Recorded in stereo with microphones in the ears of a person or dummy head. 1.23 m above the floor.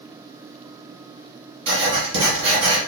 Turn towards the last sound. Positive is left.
turn(degrees=-70)  # may be behind; listen again after turning